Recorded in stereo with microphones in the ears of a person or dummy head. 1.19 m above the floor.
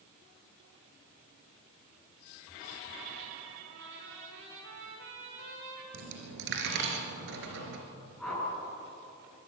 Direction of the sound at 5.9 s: 65° right (ahead or behind).